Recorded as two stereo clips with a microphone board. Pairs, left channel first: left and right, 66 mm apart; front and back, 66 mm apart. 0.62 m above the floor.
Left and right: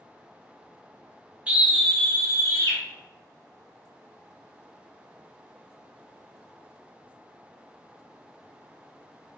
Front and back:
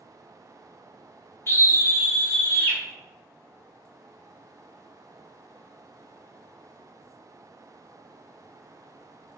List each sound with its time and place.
1.5 s a scream: 30° right, 0.7 m; by 2.8 s 60° left, 1.2 m